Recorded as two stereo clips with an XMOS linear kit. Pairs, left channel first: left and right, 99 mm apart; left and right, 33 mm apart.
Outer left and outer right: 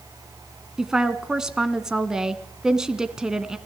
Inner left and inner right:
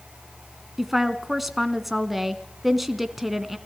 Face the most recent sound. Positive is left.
turn(degrees=-5)  # may be behind; listen again after turning